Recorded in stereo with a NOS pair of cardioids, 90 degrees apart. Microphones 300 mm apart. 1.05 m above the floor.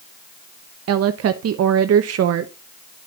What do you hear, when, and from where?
0.9 s a woman speaking: 60° right, 0.8 m